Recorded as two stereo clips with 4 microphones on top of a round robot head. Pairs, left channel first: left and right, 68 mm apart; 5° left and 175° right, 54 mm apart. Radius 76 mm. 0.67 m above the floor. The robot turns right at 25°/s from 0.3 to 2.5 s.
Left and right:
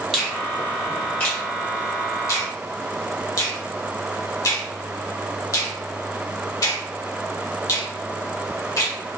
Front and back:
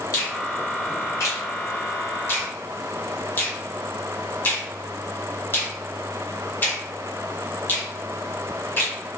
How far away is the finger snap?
About 2.0 m.